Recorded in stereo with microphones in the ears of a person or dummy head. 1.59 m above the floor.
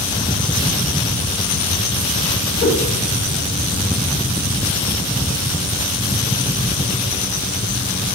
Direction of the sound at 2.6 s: 70° left (ahead or behind).